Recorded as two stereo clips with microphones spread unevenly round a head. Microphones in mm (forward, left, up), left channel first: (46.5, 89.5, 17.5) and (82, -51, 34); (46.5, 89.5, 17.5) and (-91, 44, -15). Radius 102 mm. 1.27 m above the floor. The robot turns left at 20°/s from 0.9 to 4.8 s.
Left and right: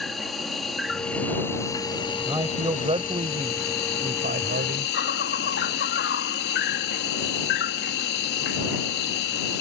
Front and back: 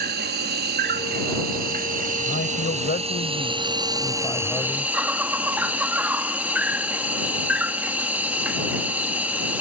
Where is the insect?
165° right; by 9.6 s 115° left.